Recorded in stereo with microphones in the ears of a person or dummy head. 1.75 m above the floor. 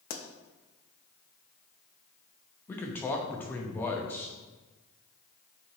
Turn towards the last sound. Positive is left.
turn(degrees=15)  # may be behind; listen again after turning